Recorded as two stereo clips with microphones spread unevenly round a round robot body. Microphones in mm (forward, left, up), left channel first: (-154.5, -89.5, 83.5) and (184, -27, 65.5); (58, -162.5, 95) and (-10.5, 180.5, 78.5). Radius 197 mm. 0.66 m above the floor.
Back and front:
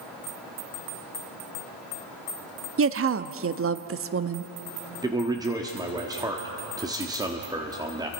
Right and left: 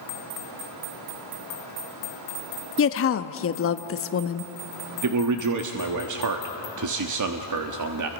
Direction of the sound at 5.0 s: 85° left.